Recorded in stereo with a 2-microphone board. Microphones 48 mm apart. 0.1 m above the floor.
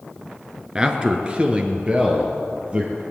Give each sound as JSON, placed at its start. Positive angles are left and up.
{"t": 0.8, "sound": "a man speaking", "side_deg": -20, "distance_m": 1.5}